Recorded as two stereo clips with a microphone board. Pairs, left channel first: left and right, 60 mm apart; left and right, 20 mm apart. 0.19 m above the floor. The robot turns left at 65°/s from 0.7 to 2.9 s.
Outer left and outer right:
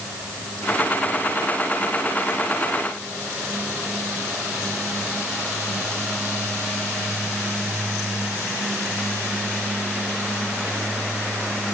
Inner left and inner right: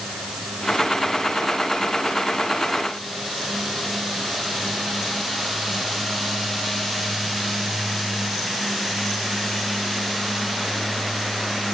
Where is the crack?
I don't hear a crack.